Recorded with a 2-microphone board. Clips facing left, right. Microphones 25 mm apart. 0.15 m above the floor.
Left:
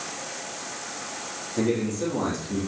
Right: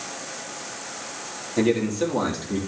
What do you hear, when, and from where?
1.6 s a man speaking: 50° right (ahead or behind), 4 m; by 2.6 s 60° right (ahead or behind), 4 m